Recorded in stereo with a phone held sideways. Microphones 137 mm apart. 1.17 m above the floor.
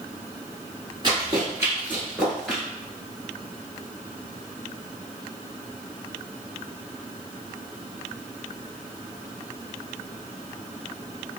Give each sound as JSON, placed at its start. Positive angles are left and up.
{"t": 1.0, "sound": "running footsteps", "side_deg": -30, "distance_m": 1.4}